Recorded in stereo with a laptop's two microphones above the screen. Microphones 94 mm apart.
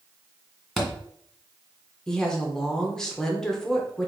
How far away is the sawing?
No sawing in this recording.